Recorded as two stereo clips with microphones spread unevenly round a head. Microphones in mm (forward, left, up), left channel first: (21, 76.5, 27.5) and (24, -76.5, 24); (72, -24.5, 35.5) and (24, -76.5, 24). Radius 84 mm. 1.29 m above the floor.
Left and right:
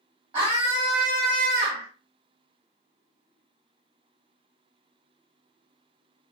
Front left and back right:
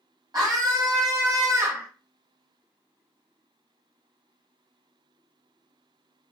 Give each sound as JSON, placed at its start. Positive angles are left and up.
{"t": 0.3, "sound": "a scream", "azimuth_deg": -150, "distance_m": 1.7}